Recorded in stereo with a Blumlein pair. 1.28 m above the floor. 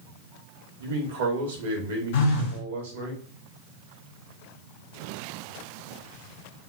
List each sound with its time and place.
0.8 s a man speaking: 60° right, 1.0 m
2.1 s a phone buzzing: 55° left, 0.7 m